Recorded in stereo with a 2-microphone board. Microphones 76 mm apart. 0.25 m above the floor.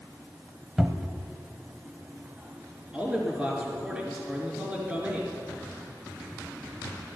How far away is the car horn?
I don't hear a car horn.